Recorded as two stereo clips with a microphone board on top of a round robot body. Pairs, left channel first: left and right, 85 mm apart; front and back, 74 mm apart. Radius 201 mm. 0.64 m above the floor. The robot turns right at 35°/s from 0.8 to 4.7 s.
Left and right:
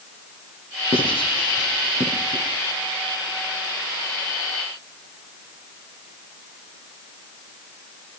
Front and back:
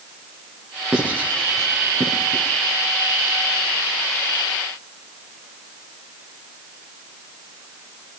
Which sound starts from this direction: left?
Writing, at 0.9 s.